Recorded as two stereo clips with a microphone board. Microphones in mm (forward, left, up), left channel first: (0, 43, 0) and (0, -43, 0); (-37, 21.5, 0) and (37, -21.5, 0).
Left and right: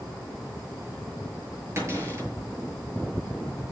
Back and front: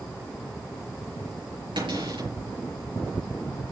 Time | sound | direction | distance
1.8 | a cupboard door | 35° right | 6 m